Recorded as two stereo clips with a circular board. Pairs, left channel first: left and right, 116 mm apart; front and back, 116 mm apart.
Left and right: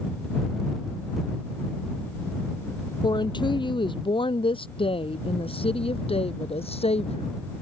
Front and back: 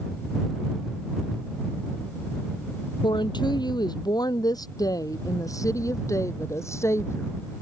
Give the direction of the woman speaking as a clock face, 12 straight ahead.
11 o'clock.